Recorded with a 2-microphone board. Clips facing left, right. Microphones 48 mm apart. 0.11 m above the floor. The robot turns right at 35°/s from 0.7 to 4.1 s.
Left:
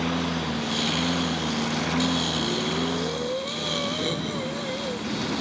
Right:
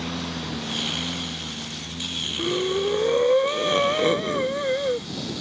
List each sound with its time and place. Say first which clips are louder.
0.0 s a lawn mower: left 4 dB; 15° left (ahead or behind); by 5.4 s 55° left (ahead or behind)
2.4 s breathing: right 3 dB; 125° right; by 5.1 s 65° right